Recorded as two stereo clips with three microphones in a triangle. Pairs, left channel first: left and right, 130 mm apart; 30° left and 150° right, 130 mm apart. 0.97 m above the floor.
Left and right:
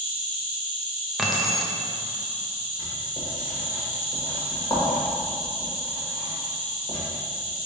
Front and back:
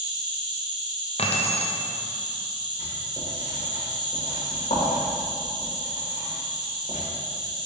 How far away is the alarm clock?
I don't hear an alarm clock.